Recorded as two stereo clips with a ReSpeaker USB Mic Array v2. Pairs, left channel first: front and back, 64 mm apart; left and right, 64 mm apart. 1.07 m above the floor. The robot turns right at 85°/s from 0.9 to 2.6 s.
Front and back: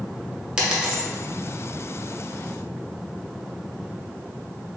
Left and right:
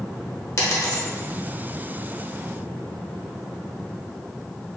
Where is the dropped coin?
110° left, 1.0 m; by 1.0 s 120° left, 1.0 m.